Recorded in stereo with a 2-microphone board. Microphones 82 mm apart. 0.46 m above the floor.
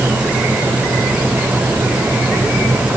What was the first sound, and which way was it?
Only background noise.